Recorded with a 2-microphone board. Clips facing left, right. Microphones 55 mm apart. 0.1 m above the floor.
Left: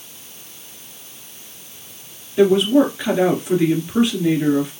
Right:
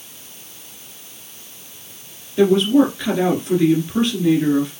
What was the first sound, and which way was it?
A woman speaking, 15° left (ahead or behind).